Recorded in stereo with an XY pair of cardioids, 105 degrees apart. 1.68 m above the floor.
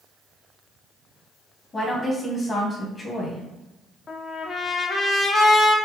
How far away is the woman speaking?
About 1.7 m.